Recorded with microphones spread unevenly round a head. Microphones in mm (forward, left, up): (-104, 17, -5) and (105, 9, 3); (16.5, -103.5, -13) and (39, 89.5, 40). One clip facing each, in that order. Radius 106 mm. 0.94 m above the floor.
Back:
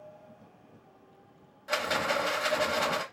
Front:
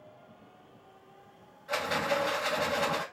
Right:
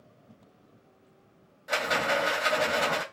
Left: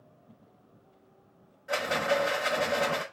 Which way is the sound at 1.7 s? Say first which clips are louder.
Even, left 1 dB; 150° right.